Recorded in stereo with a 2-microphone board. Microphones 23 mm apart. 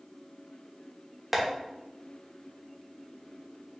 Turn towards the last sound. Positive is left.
turn(degrees=-15)  # may be behind; listen again after turning